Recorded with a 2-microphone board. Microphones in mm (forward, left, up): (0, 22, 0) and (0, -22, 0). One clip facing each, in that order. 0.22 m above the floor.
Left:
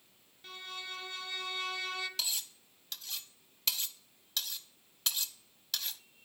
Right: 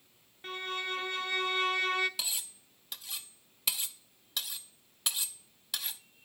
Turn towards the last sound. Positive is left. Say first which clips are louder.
# even
turn(degrees=-10)  # may be behind; listen again after turning